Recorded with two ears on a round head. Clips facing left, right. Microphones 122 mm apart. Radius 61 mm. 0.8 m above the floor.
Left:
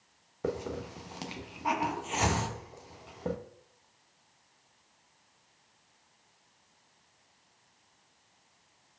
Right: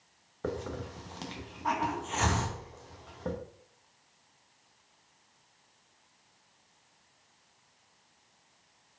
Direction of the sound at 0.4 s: 15° left (ahead or behind).